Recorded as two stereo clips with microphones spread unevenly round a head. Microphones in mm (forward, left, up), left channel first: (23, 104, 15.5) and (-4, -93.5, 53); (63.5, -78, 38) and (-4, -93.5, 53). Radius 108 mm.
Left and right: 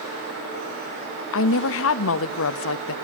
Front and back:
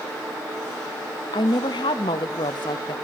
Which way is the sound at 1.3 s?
60° left.